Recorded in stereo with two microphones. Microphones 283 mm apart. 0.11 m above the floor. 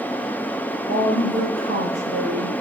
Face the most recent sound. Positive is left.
turn(degrees=-65)  # may be behind; listen again after turning